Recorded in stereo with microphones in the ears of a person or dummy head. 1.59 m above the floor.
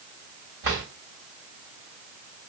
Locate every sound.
0.6 s a drawer: 60° right (ahead or behind), 3.5 m